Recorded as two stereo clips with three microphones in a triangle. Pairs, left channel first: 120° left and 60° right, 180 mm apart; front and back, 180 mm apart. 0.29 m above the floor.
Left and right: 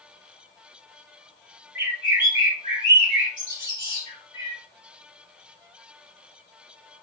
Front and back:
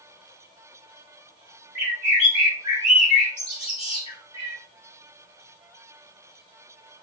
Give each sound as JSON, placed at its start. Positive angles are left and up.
{"t": 1.8, "sound": "a bird", "azimuth_deg": -40, "distance_m": 1.3}